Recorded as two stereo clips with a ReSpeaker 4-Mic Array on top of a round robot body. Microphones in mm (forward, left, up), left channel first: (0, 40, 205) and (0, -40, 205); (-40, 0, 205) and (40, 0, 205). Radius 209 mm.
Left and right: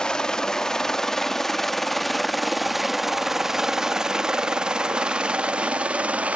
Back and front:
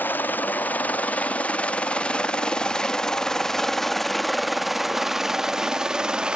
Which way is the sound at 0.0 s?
160° left.